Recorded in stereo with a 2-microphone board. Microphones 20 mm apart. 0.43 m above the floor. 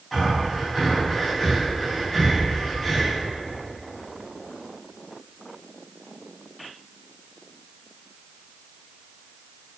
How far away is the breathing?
About 3.5 m.